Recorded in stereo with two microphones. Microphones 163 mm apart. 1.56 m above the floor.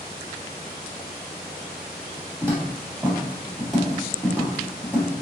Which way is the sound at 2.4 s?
15° right (ahead or behind).